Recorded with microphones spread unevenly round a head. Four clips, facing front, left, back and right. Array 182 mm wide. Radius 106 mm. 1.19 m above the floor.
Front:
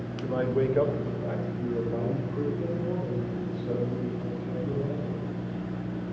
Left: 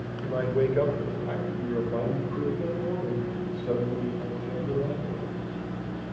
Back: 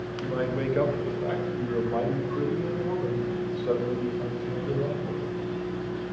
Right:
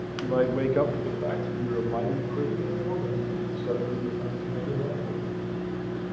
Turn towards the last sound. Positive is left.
turn(degrees=-175)